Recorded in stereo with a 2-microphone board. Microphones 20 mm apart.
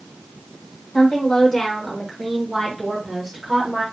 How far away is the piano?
No piano in this recording.